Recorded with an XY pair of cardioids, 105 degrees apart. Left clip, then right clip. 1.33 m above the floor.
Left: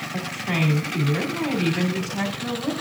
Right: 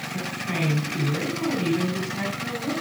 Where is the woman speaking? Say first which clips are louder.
Left 3 dB; 40° left, 3 m.